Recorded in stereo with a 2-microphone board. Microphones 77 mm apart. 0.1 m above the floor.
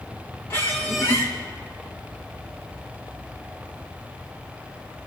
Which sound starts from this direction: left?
A squeak, at 0.5 s.